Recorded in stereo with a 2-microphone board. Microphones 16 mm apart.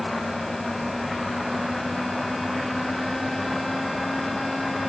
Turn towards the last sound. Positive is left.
No sound to turn to.